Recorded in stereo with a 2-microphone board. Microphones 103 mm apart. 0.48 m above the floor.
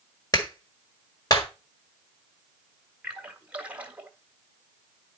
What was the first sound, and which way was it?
A clap, 40° left (ahead or behind).